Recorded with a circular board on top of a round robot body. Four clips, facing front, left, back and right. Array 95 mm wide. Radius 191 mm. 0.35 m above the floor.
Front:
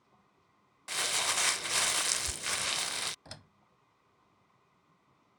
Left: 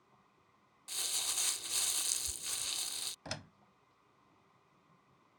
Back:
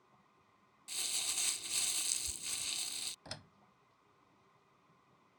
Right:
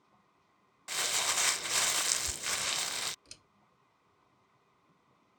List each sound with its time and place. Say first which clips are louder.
0.9 s crumpling: right 12 dB, front 16 dB; 35° right
3.2 s a door slam: left 17 dB, back 1 dB; 90° left